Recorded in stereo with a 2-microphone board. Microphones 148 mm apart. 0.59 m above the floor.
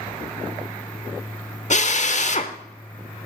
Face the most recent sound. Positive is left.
turn(degrees=50)  # may be behind; listen again after turning